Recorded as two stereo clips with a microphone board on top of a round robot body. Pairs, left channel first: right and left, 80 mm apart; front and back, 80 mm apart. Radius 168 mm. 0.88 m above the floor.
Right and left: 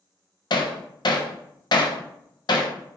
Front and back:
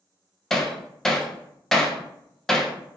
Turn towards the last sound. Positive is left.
turn(degrees=-85)